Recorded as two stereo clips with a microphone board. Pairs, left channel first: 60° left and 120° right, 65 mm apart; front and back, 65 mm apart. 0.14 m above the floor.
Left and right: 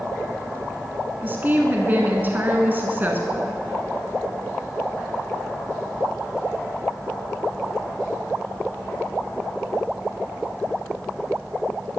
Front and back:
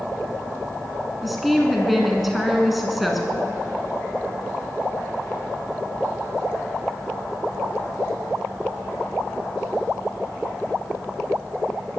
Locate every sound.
1.2 s a woman speaking: 90° right, 1.2 m